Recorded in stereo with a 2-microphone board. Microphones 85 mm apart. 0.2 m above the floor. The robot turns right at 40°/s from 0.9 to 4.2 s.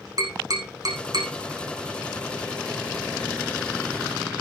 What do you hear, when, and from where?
0.2 s tapping: 50° right (ahead or behind), 5.5 m; by 1.3 s 65° right (ahead or behind), 5.5 m